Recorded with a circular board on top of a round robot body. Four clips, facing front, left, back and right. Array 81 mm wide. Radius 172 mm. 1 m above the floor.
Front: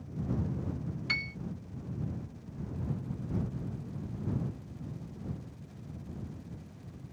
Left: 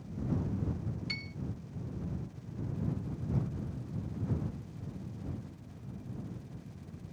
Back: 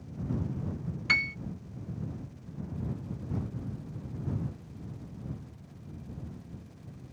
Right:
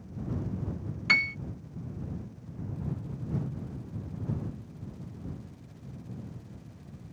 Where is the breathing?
No breathing in this recording.